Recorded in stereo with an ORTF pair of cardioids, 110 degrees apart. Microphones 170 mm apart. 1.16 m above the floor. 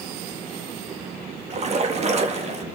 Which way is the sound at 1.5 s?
40° right.